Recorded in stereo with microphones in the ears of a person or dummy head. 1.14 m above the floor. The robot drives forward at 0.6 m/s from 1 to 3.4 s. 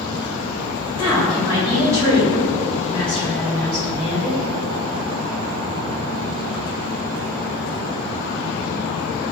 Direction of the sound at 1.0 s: 20° right (ahead or behind).